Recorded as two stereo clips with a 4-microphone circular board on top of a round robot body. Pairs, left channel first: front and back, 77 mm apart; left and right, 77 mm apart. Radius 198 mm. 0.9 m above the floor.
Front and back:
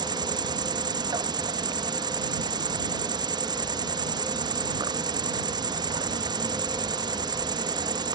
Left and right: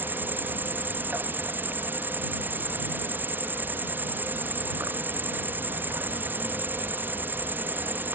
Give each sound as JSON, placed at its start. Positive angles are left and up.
{"t": 0.0, "sound": "an insect", "azimuth_deg": -155}